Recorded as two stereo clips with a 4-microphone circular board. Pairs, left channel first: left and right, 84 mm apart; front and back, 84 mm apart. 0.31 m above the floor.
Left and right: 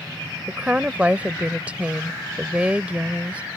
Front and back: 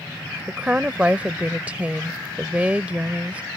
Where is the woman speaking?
135° right.